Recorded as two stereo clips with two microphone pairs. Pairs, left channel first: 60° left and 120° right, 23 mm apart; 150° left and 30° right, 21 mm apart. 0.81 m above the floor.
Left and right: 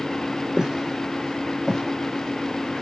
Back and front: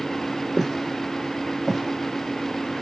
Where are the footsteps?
140° right, 0.8 m; by 2.8 s 20° left, 1.2 m.